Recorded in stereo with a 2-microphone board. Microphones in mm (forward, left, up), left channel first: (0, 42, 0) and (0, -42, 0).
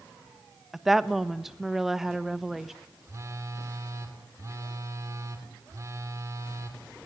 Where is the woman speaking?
5° right (ahead or behind), 1.1 m.